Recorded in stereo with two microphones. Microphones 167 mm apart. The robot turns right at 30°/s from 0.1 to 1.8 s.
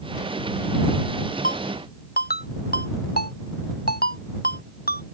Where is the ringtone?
60° left (ahead or behind); by 5.1 s 70° left (ahead or behind).